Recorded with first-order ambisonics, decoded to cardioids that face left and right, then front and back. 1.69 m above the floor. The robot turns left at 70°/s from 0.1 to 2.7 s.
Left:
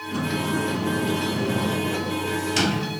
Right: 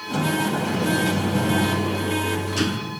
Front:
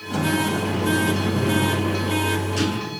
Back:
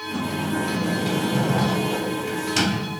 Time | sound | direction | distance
0.1 | a sliding door | 50° right | 3.5 m